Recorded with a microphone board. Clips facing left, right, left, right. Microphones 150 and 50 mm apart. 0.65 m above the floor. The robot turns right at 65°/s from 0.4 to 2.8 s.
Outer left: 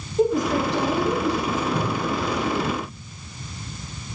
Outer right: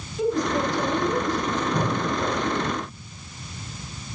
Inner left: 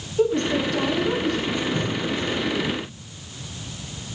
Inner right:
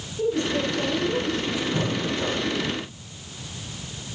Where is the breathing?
170° right, 2.5 m; by 2.5 s 115° right, 2.5 m.